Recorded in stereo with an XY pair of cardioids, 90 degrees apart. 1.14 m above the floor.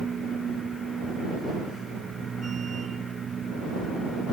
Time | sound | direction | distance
0.0 | a machine running | 50° right | ?